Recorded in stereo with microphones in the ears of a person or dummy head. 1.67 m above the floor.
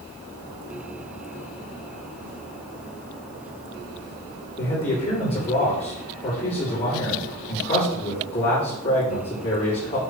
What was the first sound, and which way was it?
A man speaking, 30° left (ahead or behind).